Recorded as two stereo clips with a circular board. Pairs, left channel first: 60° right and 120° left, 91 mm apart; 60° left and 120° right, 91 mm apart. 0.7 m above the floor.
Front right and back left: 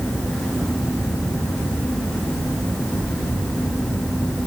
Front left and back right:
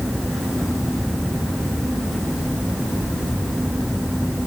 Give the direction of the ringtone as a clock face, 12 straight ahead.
No ringtone in this recording.